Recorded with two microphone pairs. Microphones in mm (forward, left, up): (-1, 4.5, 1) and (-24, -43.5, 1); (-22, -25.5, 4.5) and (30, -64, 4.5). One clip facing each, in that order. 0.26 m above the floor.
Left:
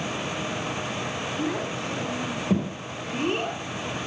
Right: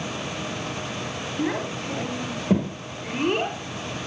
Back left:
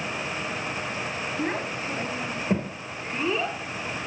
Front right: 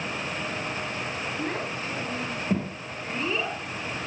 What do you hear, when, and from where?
1.4 s a child speaking: 150° right, 4 m; by 3.6 s 130° right, 3.5 m